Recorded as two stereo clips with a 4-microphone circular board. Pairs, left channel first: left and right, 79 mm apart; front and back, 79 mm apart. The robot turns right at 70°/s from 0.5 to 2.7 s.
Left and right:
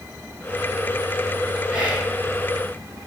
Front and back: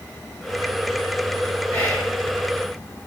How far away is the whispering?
About 1.2 m.